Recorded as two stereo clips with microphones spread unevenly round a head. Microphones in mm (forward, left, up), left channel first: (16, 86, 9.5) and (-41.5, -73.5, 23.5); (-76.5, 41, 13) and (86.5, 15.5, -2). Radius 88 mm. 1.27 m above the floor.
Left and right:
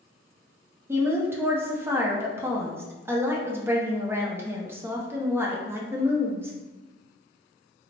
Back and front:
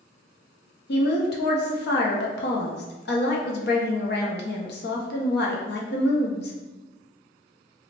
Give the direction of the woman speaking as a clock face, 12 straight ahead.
6 o'clock.